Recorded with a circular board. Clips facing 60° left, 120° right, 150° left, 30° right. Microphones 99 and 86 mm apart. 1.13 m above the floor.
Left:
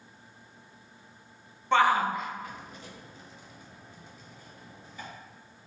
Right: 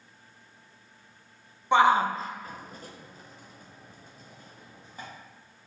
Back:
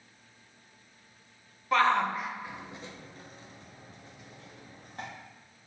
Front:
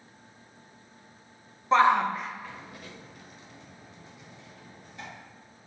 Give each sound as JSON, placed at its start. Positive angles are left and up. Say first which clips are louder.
{"t": 1.7, "sound": "a shout", "louder": "right 2 dB, front 4 dB", "azimuth_deg": -65, "distance_m": 0.6}